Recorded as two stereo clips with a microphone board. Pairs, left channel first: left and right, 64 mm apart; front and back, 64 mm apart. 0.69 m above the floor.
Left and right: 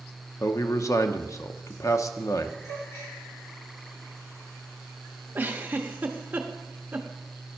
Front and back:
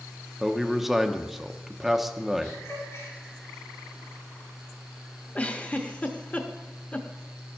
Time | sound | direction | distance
0.4 | a man speaking | 95° left | 0.8 m
2.6 | a gasp | 50° left | 5.5 m
5.3 | a giggle | 50° right | 0.9 m